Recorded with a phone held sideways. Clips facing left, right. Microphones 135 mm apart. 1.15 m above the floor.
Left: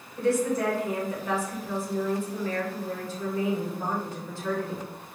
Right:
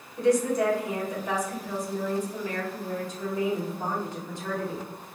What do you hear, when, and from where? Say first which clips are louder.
0.2 s a woman speaking: right 2 dB; 15° right (ahead or behind), 1.8 m